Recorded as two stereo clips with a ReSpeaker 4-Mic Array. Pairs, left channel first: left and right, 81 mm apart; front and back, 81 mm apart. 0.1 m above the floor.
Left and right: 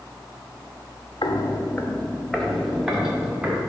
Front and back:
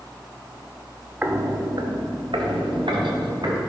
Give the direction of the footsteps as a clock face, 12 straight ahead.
8 o'clock.